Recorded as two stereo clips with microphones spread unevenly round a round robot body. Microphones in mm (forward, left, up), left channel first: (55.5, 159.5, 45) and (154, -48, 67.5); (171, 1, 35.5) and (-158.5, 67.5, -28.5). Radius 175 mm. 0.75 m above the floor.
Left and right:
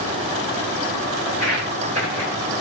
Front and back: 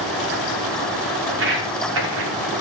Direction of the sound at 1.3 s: 130° right.